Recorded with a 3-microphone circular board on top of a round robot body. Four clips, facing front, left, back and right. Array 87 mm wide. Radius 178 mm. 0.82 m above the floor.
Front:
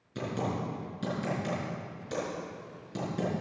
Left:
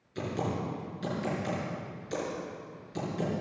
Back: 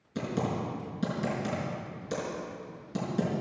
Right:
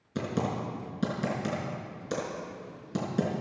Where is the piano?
I don't hear a piano.